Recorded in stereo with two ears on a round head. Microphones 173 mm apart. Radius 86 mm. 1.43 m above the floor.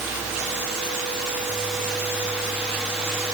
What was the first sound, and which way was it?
Only background noise.